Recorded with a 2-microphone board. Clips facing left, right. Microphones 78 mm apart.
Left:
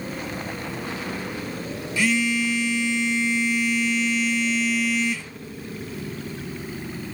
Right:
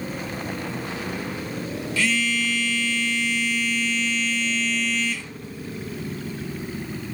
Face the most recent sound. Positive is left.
turn(degrees=15)  # may be behind; listen again after turning